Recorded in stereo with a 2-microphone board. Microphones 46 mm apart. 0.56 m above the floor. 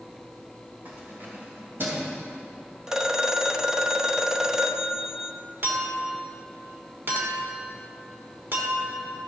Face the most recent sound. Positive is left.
turn(degrees=-50)  # may be behind; listen again after turning